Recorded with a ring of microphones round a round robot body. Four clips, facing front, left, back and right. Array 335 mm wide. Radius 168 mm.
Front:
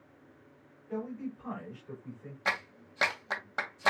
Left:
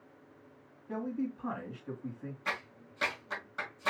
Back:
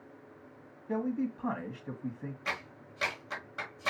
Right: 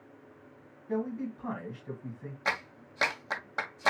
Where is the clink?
No clink in this recording.